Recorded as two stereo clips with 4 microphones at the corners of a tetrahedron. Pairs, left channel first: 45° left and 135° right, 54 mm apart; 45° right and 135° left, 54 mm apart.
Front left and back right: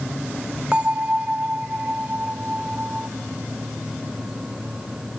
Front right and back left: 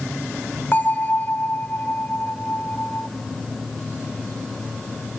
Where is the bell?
75° right, 0.5 m.